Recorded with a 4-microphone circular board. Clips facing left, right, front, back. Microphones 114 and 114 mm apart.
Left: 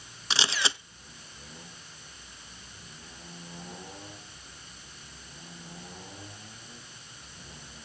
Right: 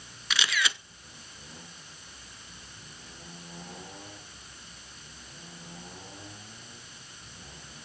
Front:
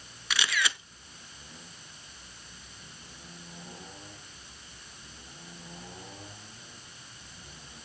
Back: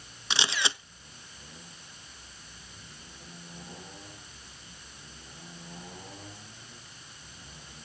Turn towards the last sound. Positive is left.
turn(degrees=130)